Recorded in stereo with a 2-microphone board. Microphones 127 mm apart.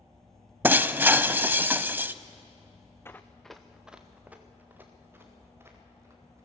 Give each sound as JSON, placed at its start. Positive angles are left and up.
{"t": 0.6, "sound": "breaking glass", "side_deg": -15, "distance_m": 0.5}
{"t": 3.0, "sound": "running footsteps", "side_deg": 20, "distance_m": 1.2}